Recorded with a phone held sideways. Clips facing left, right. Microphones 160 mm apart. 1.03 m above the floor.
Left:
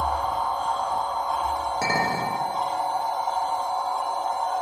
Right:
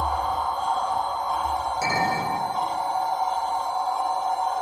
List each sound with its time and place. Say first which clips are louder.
0.0 s a machine running: even; 55° left (ahead or behind), 1.1 m
1.8 s a clink: right 1 dB; 65° left (ahead or behind), 0.5 m